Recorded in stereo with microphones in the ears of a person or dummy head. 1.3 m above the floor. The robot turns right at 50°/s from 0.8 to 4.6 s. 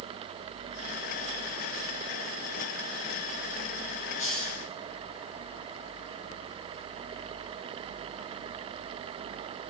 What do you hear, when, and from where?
4.2 s a hiss: 45° left (ahead or behind), 2 m; by 4.7 s 60° left (ahead or behind), 2 m